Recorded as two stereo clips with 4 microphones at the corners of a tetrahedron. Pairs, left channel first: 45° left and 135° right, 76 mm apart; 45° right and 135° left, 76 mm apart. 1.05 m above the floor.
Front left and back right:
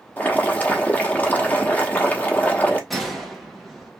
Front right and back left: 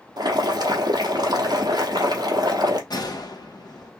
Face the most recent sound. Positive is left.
turn(degrees=-45)